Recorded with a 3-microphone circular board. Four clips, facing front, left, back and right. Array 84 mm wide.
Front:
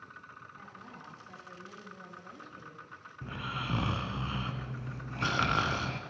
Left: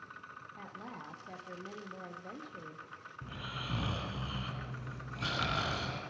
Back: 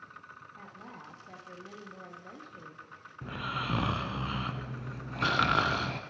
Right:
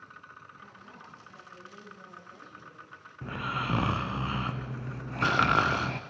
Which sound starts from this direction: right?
Snoring, at 3.2 s.